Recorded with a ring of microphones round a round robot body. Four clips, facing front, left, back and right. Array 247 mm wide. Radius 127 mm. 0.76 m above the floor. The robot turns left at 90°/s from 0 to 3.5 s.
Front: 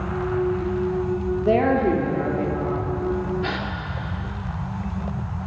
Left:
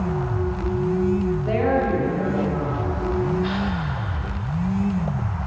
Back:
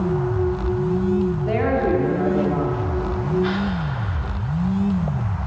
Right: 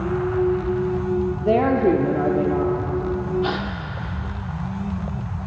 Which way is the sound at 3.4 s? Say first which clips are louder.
Even, back 5 dB; 55° right.